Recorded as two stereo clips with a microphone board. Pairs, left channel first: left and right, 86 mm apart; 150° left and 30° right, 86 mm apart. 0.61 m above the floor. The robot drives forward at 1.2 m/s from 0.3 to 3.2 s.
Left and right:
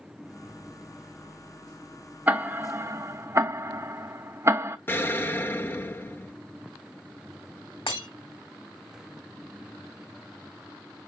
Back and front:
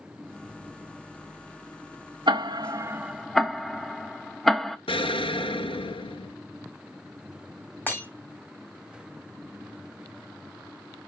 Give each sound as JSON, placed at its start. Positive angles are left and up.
{"t": 2.3, "sound": "ticking", "azimuth_deg": -20, "distance_m": 1.1}
{"t": 4.9, "sound": "an explosion", "azimuth_deg": 155, "distance_m": 0.7}
{"t": 7.9, "sound": "breaking glass", "azimuth_deg": 80, "distance_m": 2.0}